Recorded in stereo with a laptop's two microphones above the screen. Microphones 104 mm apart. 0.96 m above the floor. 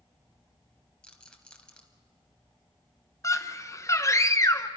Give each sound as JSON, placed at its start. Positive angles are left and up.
{"t": 1.0, "sound": "a rattle", "side_deg": 10, "distance_m": 1.4}
{"t": 3.2, "sound": "a scream", "side_deg": 30, "distance_m": 1.0}